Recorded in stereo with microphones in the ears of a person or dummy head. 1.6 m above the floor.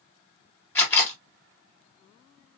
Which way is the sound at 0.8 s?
15° left (ahead or behind).